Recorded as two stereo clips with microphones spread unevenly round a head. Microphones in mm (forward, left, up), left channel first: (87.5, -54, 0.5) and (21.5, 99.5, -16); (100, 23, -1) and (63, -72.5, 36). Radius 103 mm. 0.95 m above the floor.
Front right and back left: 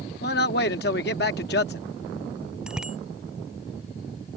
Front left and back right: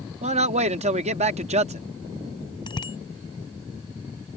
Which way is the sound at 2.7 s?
30° left.